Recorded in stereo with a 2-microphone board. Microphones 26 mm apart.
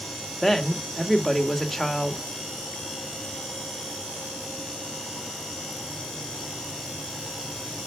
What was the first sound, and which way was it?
A woman speaking, 10° left (ahead or behind).